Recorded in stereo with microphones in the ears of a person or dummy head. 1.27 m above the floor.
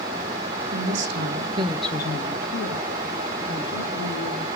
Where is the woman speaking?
70° right (ahead or behind), 1.4 m; by 4.5 s 75° left (ahead or behind), 3.5 m.